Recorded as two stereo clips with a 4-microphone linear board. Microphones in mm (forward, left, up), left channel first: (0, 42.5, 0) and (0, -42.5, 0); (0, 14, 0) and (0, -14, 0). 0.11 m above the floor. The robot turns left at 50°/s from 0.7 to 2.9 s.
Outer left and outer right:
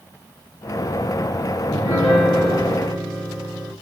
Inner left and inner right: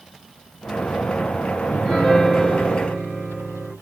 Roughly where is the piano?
Ahead left.